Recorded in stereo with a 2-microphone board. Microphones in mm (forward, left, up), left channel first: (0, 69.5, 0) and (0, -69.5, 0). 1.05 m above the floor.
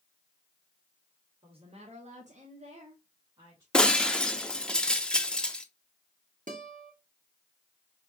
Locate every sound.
1.4 s a woman speaking: 40° right (ahead or behind), 1.3 m; by 3.6 s 25° right (ahead or behind), 1.7 m
3.7 s breaking glass: 5° left (ahead or behind), 0.6 m
6.5 s a guitar: 70° right (ahead or behind), 1.2 m